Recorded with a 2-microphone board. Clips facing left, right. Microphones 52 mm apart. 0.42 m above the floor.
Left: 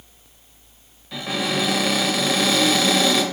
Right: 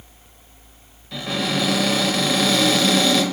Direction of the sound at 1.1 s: 5° left (ahead or behind).